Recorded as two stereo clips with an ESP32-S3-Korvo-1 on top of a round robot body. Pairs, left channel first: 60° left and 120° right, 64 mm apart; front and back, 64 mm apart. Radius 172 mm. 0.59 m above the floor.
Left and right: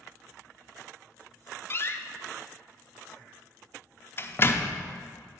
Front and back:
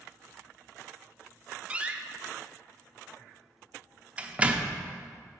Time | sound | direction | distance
1.7 | a door slam | 110° left | 0.6 m